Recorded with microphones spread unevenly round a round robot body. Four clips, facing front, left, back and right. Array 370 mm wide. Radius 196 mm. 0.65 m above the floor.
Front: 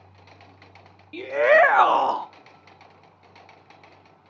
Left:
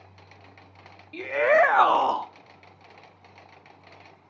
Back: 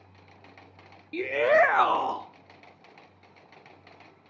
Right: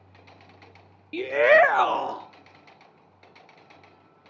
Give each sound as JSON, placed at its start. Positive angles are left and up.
{"t": 1.1, "sound": "a shout", "azimuth_deg": -95, "distance_m": 0.5}